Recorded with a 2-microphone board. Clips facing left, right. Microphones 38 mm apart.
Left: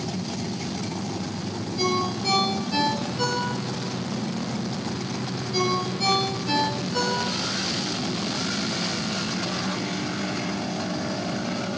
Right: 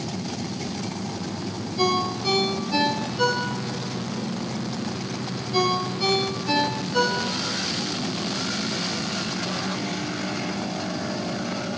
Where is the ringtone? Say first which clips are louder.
Right 2 dB; 10° right (ahead or behind), 5.5 m.